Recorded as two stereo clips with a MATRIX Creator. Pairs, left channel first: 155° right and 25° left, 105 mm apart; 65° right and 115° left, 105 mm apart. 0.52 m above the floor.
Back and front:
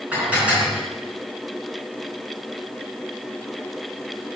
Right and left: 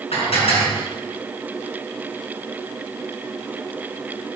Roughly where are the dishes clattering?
Ahead right.